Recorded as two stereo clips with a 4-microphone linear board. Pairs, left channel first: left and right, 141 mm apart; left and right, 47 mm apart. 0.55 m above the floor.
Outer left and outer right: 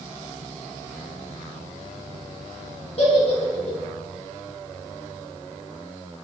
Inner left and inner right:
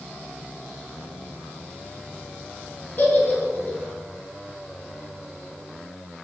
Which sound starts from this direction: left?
A giggle, at 3.0 s.